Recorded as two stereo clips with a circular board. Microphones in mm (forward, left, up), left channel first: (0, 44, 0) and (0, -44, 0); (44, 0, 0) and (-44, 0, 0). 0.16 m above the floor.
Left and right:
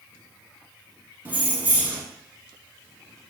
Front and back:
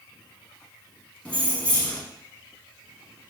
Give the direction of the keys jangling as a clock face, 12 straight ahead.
2 o'clock.